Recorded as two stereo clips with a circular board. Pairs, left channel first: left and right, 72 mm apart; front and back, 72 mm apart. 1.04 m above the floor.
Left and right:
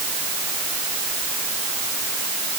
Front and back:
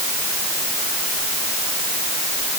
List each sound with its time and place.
Only background noise.